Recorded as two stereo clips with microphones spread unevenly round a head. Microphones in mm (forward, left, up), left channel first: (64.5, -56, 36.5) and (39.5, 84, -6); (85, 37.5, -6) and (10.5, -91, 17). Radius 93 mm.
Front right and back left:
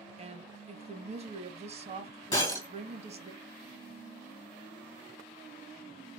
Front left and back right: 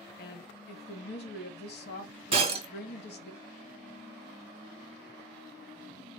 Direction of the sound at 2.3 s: 115° right.